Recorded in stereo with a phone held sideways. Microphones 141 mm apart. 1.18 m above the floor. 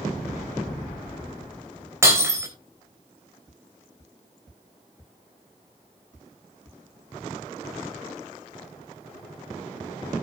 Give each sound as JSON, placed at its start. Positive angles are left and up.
{"t": 2.0, "sound": "breaking glass", "side_deg": -20, "distance_m": 3.5}